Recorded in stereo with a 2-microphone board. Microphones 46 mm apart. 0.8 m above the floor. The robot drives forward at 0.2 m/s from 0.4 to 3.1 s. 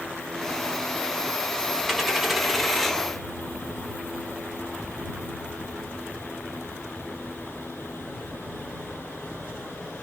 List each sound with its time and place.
1.9 s a dropped coin: 5° right (ahead or behind), 0.7 m